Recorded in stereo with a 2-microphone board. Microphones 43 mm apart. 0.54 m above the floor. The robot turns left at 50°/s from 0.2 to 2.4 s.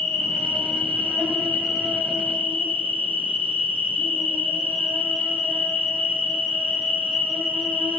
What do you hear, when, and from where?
0.0 s an insect: 150° left, 1.5 m; by 8.0 s 40° left, 1.5 m